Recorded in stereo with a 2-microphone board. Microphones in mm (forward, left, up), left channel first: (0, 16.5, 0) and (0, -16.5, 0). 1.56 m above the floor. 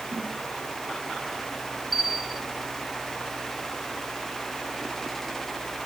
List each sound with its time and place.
0.1 s a snare drum: 65° right (ahead or behind), 7.5 m
1.9 s a bell: 5° right (ahead or behind), 1.6 m